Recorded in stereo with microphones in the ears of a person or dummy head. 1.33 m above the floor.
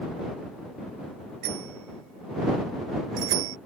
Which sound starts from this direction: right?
A bicycle bell, at 1.4 s.